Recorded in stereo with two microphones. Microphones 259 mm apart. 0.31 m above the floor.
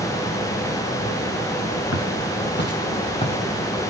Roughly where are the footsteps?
Left.